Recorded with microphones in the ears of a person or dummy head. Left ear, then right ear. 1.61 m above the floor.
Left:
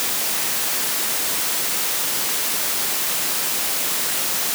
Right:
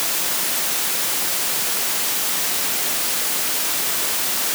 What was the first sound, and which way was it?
Only background noise.